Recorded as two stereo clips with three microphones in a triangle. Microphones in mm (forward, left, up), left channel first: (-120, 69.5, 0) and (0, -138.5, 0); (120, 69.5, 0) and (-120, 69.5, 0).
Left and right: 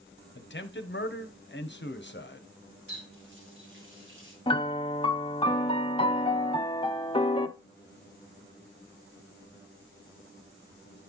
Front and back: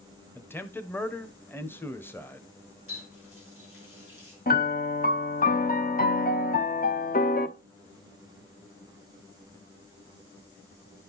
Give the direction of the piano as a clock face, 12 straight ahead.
10 o'clock.